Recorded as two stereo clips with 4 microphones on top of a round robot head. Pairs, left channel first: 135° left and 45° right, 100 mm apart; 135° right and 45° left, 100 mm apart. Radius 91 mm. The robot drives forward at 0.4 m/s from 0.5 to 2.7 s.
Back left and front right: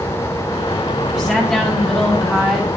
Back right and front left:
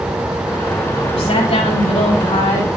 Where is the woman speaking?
140° right, 4.5 m; by 2.7 s 145° right, 5 m.